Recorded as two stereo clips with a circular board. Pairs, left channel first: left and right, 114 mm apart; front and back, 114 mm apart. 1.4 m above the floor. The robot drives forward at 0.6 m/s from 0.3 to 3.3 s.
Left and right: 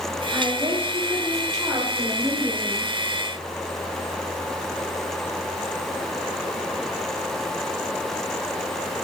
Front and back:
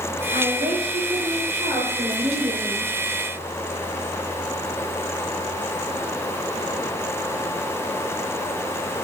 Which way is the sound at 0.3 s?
150° right.